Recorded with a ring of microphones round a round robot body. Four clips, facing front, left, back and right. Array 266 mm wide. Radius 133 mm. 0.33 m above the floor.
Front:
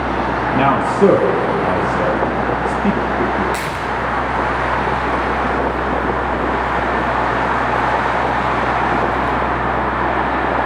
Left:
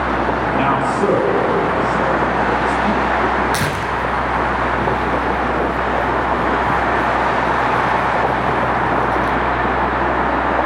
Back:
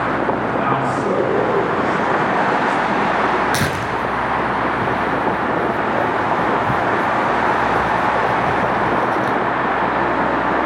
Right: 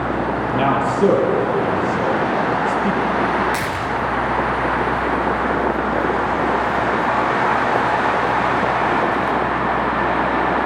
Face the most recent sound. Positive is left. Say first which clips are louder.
# left 2 dB, back 1 dB
turn(degrees=150)